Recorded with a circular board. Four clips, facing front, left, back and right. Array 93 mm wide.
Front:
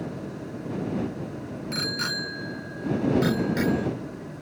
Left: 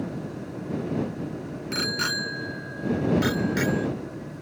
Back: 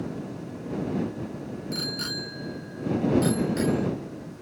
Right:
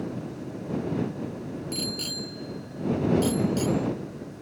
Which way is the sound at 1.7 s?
65° left.